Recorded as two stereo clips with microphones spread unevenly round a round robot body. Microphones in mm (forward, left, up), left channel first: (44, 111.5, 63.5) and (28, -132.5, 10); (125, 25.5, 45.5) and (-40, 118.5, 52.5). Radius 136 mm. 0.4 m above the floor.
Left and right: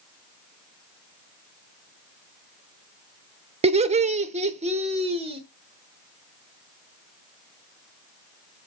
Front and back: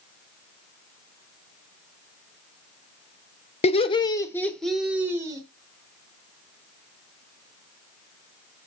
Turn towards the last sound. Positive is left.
turn(degrees=-140)